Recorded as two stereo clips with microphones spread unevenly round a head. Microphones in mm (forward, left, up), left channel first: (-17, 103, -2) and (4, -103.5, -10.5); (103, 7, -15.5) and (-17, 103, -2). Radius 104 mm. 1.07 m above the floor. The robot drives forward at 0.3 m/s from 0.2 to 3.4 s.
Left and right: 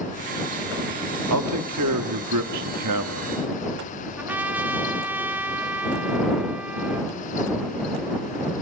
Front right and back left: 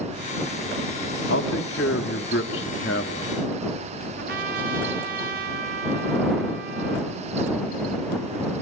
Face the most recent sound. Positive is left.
turn(degrees=-165)